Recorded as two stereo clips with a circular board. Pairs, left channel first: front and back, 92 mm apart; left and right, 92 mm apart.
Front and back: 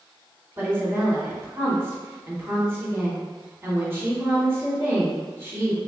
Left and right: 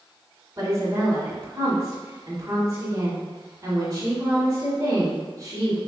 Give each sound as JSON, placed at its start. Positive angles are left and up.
{"t": 0.6, "sound": "a woman speaking", "azimuth_deg": -125, "distance_m": 1.5}